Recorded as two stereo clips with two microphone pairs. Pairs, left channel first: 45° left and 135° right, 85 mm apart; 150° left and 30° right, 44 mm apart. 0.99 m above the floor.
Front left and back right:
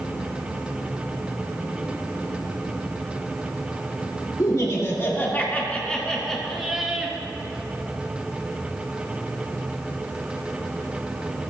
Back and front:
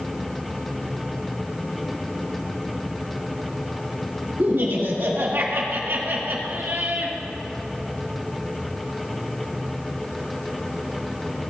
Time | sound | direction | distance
4.4 | laughter | straight ahead | 2 m